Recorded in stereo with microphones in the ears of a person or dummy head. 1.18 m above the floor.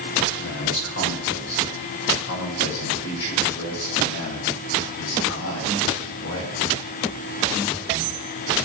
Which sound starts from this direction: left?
A man speaking, at 0.4 s.